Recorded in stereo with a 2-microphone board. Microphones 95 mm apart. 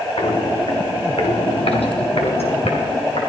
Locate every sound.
0.2 s footsteps: 60° left (ahead or behind), 2 m; by 3.3 s 80° left, 3.5 m